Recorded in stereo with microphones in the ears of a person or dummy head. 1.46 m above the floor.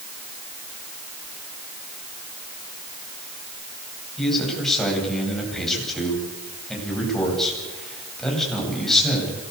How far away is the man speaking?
About 9.5 m.